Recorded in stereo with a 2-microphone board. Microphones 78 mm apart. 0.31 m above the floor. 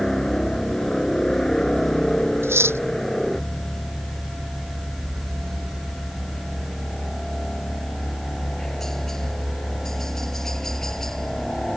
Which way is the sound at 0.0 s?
5° left (ahead or behind).